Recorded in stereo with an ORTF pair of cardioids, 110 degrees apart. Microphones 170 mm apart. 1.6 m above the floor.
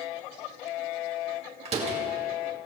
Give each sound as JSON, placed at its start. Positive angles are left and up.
{"t": 1.6, "sound": "a door slam", "azimuth_deg": -40, "distance_m": 2.0}